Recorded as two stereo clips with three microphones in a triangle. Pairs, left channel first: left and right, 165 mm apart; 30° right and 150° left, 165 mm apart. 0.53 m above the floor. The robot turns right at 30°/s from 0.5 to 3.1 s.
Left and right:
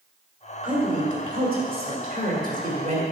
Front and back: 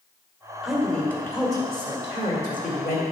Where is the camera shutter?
I don't hear a camera shutter.